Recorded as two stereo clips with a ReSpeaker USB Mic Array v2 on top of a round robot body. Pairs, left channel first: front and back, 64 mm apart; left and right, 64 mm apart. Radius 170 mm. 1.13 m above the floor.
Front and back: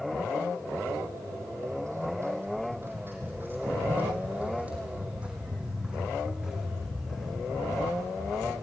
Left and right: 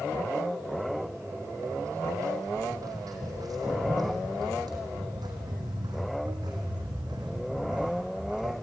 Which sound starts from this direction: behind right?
Footsteps, at 0.8 s.